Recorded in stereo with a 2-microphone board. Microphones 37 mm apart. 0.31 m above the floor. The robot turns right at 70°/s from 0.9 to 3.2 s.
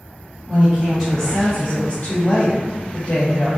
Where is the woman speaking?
20° right, 1.8 m; by 3.5 s 140° left, 1.8 m.